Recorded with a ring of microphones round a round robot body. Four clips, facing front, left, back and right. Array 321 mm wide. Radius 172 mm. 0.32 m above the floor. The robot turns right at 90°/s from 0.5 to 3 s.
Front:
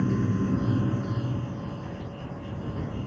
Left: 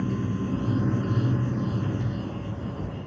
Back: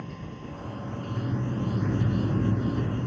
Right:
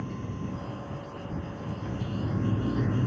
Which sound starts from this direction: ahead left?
Running water, at 0.0 s.